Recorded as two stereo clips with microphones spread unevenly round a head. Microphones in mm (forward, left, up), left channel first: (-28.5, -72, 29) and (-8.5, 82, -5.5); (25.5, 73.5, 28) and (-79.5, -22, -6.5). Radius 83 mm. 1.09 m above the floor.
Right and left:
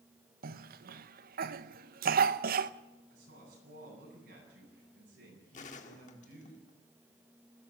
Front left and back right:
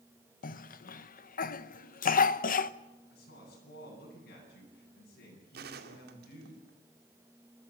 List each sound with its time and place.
0.4 s a cough: 70° left, 0.9 m
3.1 s a woman speaking: 55° left, 8.5 m
5.5 s a gunshot: 140° right, 2 m